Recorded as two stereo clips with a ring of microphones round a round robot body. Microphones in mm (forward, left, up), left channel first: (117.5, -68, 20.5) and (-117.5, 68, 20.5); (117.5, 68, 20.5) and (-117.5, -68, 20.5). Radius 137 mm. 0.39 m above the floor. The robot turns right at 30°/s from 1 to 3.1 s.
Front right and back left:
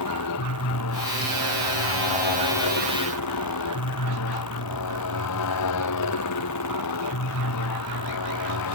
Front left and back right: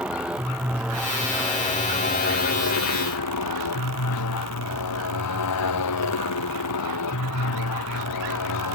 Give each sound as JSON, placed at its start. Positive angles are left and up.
{"t": 0.0, "sound": "a motorcycle", "azimuth_deg": -65}